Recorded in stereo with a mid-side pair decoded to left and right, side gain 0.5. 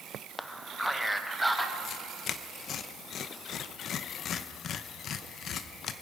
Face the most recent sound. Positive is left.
turn(degrees=60)